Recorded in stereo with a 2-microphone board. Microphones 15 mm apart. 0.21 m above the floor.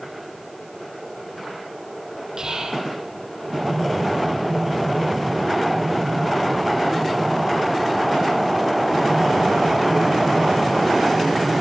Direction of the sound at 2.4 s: 50° right (ahead or behind).